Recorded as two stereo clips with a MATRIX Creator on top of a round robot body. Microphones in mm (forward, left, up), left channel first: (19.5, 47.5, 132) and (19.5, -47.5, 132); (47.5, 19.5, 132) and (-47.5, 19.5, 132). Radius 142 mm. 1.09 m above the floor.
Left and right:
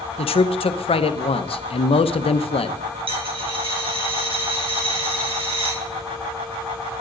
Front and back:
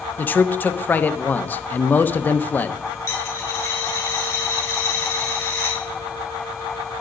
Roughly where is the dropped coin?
Ahead right.